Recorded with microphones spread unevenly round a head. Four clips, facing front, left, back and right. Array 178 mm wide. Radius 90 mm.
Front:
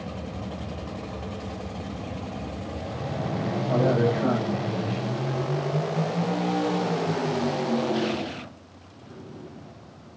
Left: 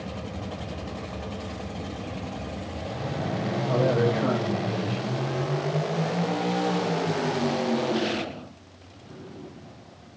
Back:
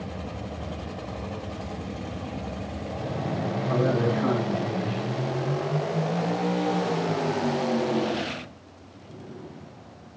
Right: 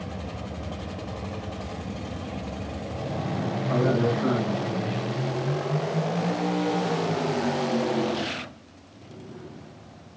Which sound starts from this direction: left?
A man speaking, at 3.7 s.